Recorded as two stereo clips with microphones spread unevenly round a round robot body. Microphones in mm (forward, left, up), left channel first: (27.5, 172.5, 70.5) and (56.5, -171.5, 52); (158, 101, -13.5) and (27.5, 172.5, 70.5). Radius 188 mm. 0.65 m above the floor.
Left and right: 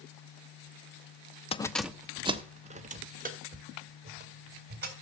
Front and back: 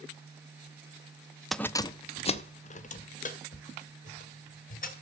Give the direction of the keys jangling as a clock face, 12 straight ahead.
11 o'clock.